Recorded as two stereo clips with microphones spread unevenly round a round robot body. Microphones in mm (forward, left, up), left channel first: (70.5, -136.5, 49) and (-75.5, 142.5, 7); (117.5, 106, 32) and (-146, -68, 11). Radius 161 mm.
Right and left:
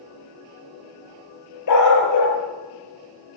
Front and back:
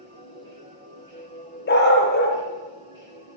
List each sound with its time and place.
1.7 s a dog barking: 25° right, 5 m